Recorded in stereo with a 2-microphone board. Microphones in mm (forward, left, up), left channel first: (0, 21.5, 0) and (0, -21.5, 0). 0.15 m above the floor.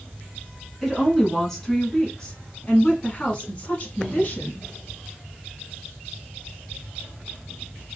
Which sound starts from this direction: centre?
A woman speaking, at 0.8 s.